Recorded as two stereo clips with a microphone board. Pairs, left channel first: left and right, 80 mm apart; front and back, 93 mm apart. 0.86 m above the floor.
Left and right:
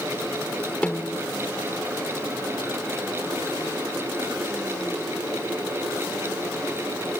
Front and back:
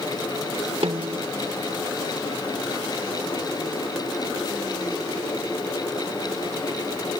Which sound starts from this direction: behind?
A snare drum, at 0.8 s.